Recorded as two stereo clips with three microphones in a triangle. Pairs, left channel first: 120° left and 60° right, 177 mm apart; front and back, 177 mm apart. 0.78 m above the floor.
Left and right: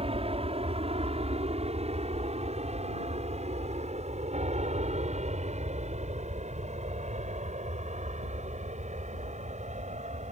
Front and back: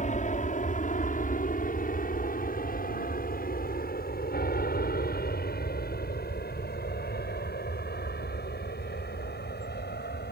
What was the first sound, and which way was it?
An aircraft, 20° right.